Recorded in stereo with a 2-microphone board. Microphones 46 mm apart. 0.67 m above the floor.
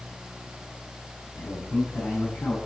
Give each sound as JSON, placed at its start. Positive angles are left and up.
{"t": 1.4, "sound": "a man speaking", "side_deg": 80, "distance_m": 6.5}